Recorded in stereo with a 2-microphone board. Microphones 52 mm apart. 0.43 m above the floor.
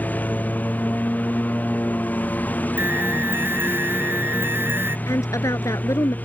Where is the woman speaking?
80° left.